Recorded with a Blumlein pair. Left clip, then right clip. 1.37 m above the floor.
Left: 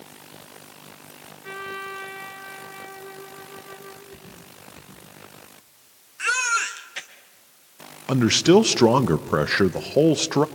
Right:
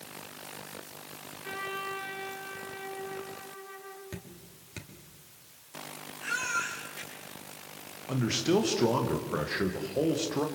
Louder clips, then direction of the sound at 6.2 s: Left 9 dB; 50° left.